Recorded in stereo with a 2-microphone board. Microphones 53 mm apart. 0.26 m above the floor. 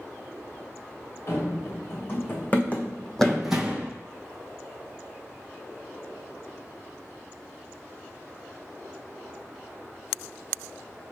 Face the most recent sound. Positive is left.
turn(degrees=-25)  # may be behind; listen again after turning